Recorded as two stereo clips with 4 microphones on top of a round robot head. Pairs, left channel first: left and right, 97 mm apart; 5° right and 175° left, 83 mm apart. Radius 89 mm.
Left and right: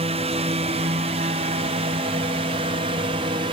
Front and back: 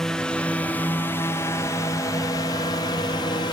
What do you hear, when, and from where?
0.0 s a drone: 90° right; by 3.5 s 50° right